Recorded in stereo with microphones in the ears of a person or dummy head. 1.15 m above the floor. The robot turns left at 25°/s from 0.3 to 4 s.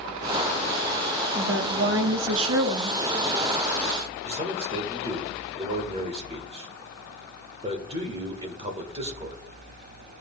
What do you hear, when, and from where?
1.4 s a woman speaking: 45° right, 1.0 m; by 3.0 s 85° right, 1.0 m
4.2 s a man speaking: 40° right (ahead or behind), 1.4 m